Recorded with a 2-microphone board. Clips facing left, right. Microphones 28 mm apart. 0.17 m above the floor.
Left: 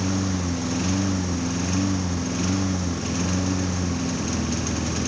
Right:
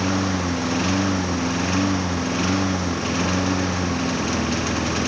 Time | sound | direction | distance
0.0 | a lawn mower | 25° right (ahead or behind) | ?